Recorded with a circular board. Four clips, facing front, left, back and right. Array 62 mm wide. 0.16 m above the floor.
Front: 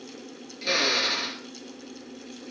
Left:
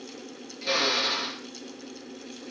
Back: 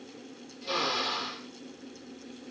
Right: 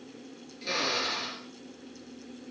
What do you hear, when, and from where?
0.6 s a drill: 15° left, 2.5 m